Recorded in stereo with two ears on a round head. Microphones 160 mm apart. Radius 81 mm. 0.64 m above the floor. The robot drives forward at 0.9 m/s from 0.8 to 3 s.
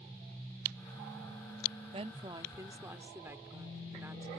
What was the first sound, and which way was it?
A woman speaking, 35° right (ahead or behind).